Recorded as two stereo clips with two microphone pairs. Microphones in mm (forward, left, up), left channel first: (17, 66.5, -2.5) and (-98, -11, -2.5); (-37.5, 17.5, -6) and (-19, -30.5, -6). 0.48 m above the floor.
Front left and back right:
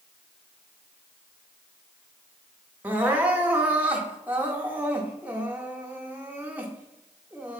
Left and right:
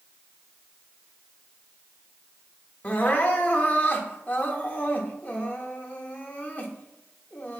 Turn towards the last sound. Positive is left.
turn(degrees=145)